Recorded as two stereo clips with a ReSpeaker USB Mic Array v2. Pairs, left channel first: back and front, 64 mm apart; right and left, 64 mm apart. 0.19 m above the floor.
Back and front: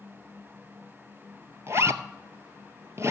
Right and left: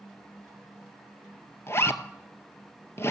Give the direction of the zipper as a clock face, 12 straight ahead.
1 o'clock.